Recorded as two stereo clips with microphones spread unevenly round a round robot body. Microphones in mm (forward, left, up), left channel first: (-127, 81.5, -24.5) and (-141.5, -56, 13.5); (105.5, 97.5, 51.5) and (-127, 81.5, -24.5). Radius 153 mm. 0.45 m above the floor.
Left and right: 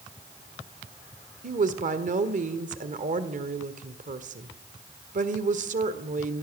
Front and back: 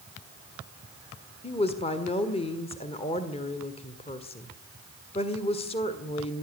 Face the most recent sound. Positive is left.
turn(degrees=-75)